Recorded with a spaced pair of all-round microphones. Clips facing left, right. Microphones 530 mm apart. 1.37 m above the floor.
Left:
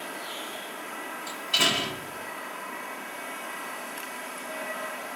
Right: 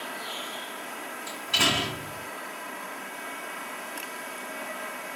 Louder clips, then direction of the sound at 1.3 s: Right 1 dB; 15° right (ahead or behind).